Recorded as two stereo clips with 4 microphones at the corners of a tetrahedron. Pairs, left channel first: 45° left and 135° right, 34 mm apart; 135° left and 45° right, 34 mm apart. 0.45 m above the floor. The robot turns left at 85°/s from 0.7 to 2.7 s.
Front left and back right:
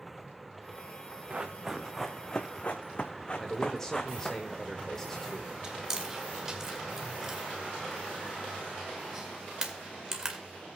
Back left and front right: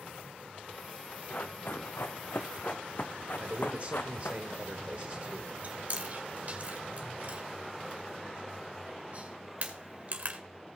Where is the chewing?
70° right, 1.9 m.